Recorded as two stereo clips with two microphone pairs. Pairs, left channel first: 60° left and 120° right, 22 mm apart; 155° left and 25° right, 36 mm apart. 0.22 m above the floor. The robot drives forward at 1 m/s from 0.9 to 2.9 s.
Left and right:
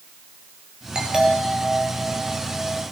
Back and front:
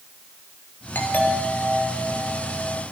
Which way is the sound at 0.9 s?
Straight behind.